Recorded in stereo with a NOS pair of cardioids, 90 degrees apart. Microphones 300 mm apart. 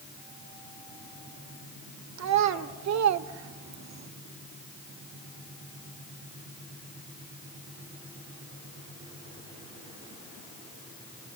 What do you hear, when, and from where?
2.2 s a child speaking: 65° right, 3 m